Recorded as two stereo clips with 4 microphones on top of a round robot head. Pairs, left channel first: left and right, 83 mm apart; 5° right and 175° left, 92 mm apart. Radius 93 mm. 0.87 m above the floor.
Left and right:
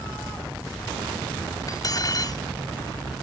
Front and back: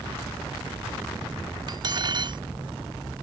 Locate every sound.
1.7 s cutlery clinking: 135° left